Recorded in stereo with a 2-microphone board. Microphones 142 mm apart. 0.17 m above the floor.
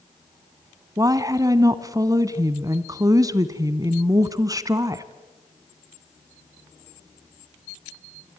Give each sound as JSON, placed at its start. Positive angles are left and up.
{"t": 1.0, "sound": "a woman speaking", "side_deg": -25, "distance_m": 1.1}